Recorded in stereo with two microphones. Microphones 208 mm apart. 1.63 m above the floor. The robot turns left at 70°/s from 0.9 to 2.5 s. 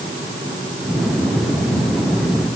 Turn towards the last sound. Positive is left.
No sound to turn to.